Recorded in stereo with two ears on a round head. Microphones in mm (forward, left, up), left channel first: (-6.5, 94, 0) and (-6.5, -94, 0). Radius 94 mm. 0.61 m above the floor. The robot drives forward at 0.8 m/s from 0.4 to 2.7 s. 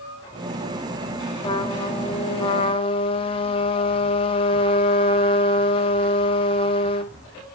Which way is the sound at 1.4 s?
25° left (ahead or behind).